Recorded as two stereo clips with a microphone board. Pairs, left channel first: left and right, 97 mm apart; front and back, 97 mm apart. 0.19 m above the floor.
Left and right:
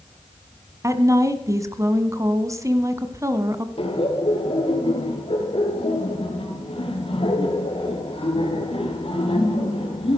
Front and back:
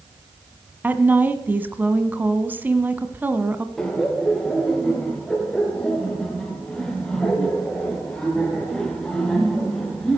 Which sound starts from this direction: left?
Laughter, at 3.8 s.